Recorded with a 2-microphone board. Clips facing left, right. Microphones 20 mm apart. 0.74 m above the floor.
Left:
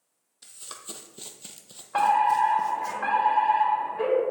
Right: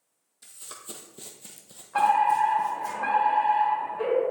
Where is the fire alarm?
55° left (ahead or behind), 3 m.